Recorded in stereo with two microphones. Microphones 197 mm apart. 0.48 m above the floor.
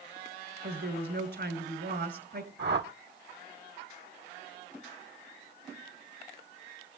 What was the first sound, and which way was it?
A woman speaking, 65° right (ahead or behind).